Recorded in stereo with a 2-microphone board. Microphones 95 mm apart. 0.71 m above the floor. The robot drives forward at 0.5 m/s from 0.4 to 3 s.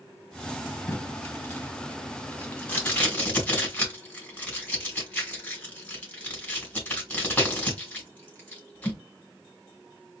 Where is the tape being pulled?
25° left (ahead or behind), 1.6 m; by 9.0 s 15° left (ahead or behind), 2.5 m.